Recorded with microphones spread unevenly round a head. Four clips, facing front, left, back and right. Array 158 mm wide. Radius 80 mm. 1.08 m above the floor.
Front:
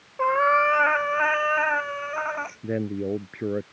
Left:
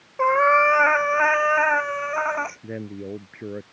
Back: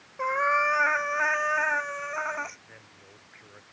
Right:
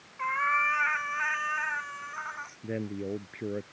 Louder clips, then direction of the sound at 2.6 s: Left 1 dB, front 26 dB; straight ahead.